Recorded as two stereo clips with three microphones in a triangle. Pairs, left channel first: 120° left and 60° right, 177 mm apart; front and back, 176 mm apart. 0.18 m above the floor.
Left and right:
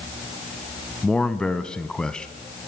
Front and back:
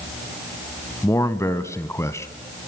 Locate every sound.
1.0 s a man speaking: 40° left, 1.0 m